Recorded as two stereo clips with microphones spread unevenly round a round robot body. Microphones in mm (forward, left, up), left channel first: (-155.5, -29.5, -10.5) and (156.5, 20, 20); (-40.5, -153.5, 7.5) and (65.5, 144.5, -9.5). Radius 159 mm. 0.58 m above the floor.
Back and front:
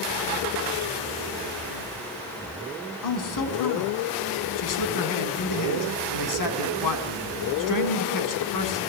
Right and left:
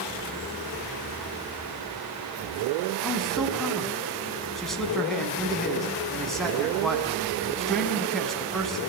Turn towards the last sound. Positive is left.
turn(degrees=160)